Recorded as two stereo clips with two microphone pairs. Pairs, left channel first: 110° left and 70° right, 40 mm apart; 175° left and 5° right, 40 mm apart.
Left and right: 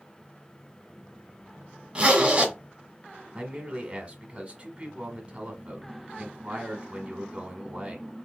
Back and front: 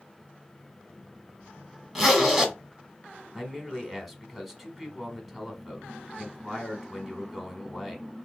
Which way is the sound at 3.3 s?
90° right.